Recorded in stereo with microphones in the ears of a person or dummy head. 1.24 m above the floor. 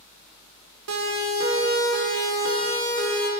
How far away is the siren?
About 5 m.